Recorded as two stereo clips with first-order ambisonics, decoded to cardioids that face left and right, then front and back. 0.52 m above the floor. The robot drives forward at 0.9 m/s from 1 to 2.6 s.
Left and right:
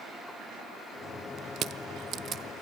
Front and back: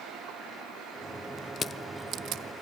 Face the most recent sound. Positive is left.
turn(degrees=-155)